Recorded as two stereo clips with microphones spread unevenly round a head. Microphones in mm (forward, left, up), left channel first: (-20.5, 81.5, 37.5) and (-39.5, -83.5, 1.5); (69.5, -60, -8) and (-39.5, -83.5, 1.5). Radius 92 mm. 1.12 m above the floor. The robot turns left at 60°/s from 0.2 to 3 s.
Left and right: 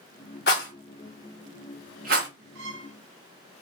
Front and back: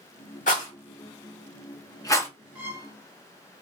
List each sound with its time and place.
0.5 s a rattle: 50° left, 1.7 m; by 2.3 s 60° right, 1.7 m
2.5 s a violin: 95° right, 2.5 m; by 3.0 s 120° right, 2.5 m